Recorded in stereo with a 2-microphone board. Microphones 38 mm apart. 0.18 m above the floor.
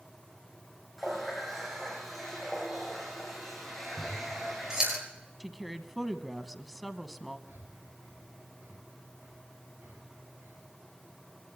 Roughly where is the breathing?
Right.